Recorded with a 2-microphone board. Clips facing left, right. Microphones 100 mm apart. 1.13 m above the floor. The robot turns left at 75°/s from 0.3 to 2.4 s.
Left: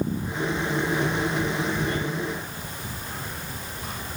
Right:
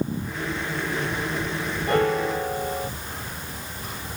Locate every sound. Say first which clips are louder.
1.9 s a piano: right 7 dB; 60° right; by 2.9 s 100° right